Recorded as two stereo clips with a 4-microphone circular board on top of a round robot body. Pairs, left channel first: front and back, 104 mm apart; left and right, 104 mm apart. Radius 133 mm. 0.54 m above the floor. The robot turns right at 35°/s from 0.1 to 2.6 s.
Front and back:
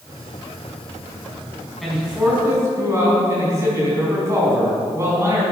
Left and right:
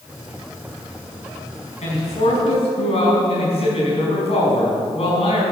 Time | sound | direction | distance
1.8 | a man speaking | 90° left | 5 m